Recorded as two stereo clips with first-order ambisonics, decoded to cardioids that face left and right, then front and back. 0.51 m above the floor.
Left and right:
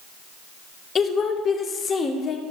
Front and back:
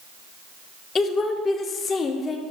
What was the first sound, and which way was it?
A woman speaking, 45° left.